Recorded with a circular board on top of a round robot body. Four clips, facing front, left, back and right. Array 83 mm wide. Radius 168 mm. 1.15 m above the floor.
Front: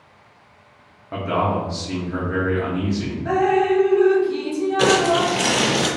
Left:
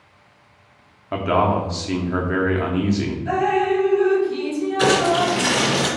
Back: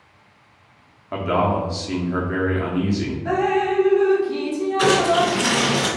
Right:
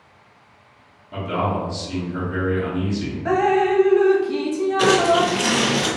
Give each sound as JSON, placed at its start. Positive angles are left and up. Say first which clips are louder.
{"t": 1.1, "sound": "a man speaking", "louder": "left 5 dB, back 1 dB", "azimuth_deg": 105, "distance_m": 0.9}
{"t": 3.2, "sound": "dripping", "louder": "right 2 dB, front 3 dB", "azimuth_deg": -85, "distance_m": 0.6}
{"t": 4.8, "sound": "crumpling", "louder": "right 1 dB, even", "azimuth_deg": -25, "distance_m": 1.5}